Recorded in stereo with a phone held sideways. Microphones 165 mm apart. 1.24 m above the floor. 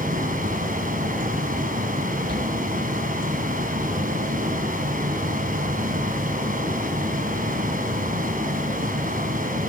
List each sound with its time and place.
0.0 s a fan: 55° right (ahead or behind), 3.5 m
2.3 s a shout: 75° right (ahead or behind), 2.5 m